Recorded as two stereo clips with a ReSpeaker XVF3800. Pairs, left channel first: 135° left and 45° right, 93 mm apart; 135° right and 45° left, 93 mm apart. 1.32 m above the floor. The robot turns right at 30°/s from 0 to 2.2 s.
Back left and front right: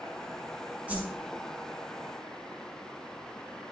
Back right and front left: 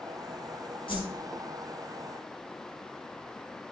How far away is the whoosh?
About 5 m.